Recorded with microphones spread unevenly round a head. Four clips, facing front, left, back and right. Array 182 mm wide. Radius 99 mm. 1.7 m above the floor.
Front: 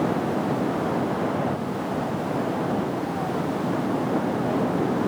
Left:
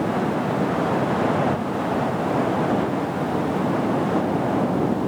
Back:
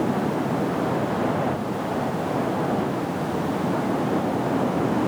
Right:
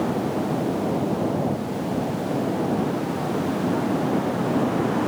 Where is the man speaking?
I don't hear a man speaking.